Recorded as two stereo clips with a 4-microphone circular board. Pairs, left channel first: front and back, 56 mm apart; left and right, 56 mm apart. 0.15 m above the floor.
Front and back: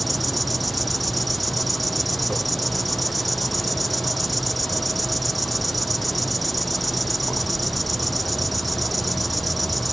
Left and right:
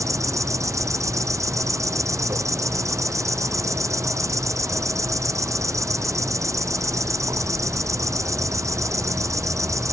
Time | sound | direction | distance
0.0 | an insect | 90° right | ?